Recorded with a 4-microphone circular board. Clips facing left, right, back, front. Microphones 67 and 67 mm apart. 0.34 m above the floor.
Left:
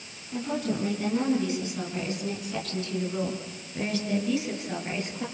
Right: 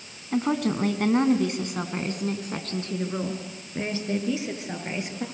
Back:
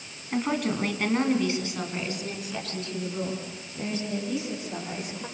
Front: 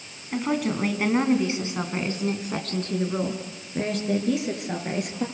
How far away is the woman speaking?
About 3.5 m.